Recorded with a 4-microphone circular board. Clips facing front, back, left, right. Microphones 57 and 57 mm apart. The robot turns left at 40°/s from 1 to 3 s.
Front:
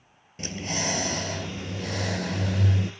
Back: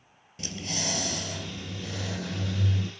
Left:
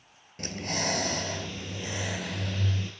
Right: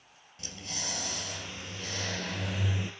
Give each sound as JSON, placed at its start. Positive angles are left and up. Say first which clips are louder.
{"t": 0.4, "sound": "breathing", "louder": "front 4 dB, left 10 dB", "azimuth_deg": 55, "distance_m": 0.7}